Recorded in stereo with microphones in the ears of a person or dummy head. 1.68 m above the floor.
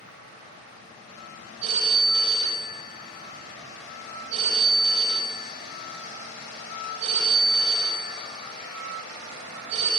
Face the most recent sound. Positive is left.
turn(degrees=-45)  # may be behind; listen again after turning